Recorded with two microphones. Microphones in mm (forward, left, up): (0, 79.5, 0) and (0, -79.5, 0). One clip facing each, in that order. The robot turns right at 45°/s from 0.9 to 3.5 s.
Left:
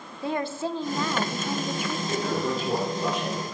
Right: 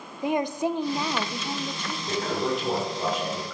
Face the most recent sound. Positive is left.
turn(degrees=-75)